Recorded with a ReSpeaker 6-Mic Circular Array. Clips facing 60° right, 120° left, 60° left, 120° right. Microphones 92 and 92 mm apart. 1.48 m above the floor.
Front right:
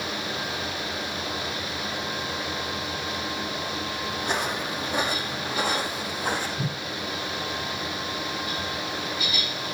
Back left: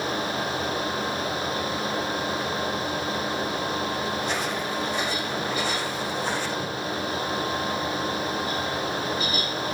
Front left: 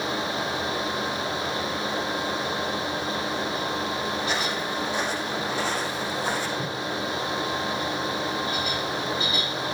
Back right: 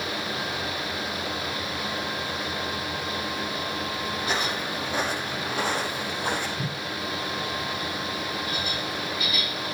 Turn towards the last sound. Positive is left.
turn(degrees=-40)